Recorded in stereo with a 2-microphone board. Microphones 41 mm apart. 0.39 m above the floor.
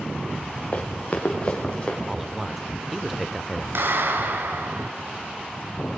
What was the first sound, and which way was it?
Running footsteps, 30° left (ahead or behind).